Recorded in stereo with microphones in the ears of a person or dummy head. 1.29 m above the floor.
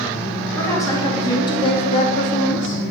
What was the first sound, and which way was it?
A woman speaking, 15° left (ahead or behind).